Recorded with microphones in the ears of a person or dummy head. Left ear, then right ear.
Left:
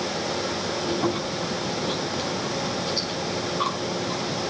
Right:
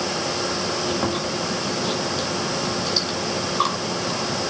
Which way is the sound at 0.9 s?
55° right (ahead or behind).